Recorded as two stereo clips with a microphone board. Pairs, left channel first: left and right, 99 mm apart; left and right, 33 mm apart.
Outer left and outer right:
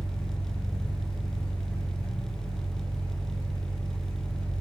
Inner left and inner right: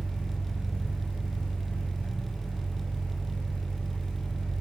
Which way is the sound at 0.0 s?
75° right (ahead or behind).